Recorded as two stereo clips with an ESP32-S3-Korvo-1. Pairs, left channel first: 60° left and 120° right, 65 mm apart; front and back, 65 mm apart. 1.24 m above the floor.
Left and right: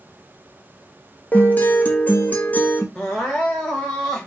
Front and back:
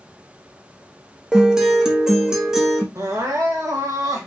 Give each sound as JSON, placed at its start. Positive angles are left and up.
{"t": 1.3, "sound": "a guitar", "azimuth_deg": 105, "distance_m": 0.6}
{"t": 3.0, "sound": "crying", "azimuth_deg": 140, "distance_m": 1.1}